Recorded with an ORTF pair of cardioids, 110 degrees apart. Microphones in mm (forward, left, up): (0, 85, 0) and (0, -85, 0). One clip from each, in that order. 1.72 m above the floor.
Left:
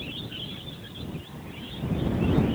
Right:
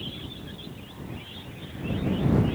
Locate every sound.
Only background noise.